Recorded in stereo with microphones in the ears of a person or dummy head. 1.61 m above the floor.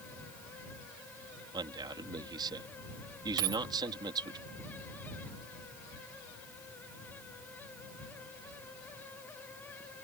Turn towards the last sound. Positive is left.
turn(degrees=-20)  # may be behind; listen again after turning